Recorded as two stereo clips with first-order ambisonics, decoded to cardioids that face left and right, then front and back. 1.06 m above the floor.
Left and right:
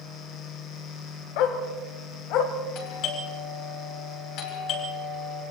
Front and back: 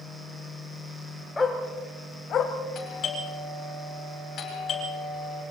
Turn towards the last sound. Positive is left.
turn(degrees=55)